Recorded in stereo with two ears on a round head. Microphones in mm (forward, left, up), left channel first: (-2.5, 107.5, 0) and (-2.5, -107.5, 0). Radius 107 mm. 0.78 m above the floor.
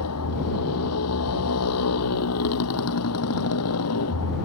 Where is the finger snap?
I don't hear a finger snap.